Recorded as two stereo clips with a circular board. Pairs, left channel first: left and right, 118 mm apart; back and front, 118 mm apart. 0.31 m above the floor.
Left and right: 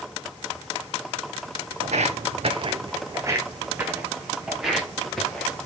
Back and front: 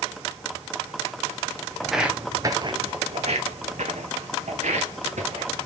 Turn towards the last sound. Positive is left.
turn(degrees=5)